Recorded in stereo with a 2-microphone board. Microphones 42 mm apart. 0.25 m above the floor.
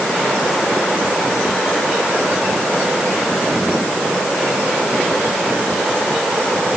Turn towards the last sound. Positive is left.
No sound to turn to.